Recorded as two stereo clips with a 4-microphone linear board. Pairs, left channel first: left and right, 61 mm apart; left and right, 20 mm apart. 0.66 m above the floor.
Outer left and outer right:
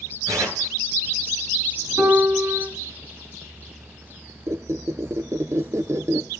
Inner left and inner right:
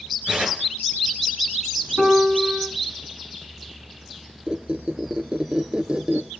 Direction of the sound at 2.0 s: 45° right (ahead or behind).